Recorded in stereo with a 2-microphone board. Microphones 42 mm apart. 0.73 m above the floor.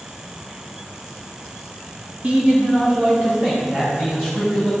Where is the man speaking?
35° right (ahead or behind), 1.7 m; by 4.7 s 25° right (ahead or behind), 5 m.